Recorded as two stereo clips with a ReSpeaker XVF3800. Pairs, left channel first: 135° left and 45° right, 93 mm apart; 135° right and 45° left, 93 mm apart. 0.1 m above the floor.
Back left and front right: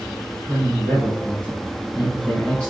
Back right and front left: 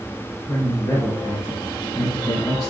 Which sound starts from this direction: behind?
A man speaking, at 0.5 s.